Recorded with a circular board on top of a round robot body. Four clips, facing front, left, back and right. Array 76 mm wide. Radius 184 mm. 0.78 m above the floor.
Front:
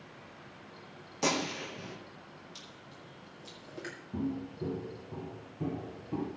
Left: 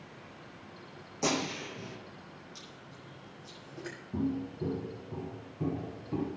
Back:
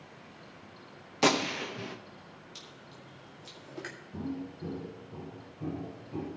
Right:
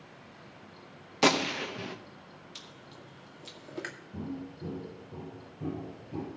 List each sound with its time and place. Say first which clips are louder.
1.2 s a gunshot: right 6 dB, back 5 dB; 120° right, 1.3 m
2.5 s chewing: even, back 1 dB; 100° right, 2 m
4.1 s footsteps: left 8 dB, front 3 dB; 55° left, 3 m; by 6.3 s 50° left, 4.5 m